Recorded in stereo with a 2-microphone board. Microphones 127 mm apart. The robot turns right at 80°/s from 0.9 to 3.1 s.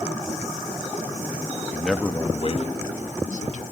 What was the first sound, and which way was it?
A man speaking, 10° right.